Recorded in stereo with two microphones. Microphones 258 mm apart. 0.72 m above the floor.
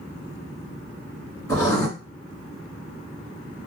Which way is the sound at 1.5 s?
65° right (ahead or behind).